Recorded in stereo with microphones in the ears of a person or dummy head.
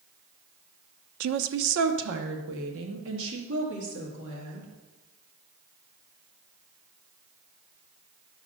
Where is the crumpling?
I don't hear crumpling.